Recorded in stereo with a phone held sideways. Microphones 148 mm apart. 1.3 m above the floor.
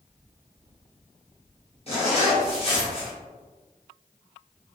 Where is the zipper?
40° left (ahead or behind), 1.2 m.